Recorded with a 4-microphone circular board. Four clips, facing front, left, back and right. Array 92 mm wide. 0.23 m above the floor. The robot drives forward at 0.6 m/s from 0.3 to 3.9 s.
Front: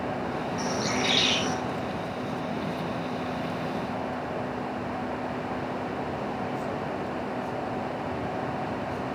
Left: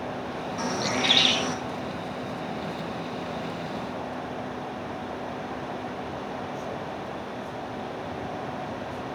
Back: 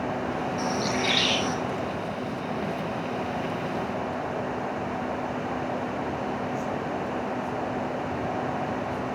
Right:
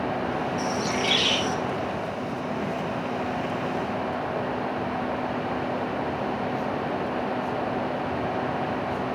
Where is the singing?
I don't hear singing.